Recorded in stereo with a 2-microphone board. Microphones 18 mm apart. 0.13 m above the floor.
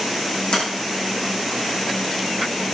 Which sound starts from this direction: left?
A sliding door, at 0.5 s.